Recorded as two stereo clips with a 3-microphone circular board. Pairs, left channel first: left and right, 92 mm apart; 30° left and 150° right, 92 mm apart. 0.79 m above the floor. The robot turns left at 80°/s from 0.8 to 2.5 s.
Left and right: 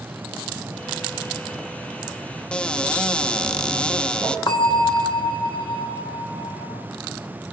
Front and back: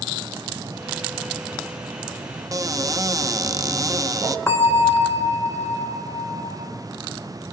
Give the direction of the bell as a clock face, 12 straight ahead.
9 o'clock.